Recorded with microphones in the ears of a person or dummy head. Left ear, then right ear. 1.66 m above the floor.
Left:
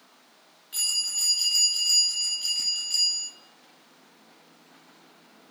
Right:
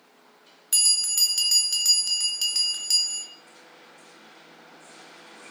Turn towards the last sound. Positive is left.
turn(degrees=-65)  # may be behind; listen again after turning